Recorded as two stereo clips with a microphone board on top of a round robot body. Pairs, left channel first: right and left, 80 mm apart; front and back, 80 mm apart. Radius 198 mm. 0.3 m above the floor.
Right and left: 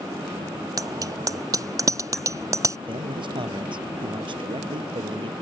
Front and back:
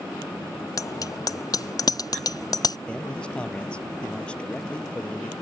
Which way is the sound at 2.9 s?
75° left.